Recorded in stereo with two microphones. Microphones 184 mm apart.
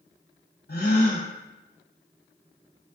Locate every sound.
0.7 s a gasp: 65° left (ahead or behind), 0.7 m